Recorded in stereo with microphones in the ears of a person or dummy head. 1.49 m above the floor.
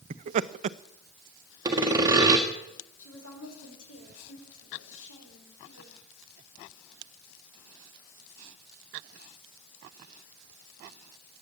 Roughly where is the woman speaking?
Left.